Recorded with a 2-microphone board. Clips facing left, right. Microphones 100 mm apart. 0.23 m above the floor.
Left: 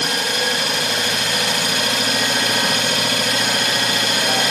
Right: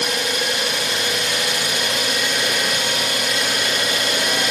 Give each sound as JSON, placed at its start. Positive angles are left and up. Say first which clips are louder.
{"t": 0.0, "sound": "an engine running", "louder": "left 1 dB", "side_deg": 50, "distance_m": 3.5}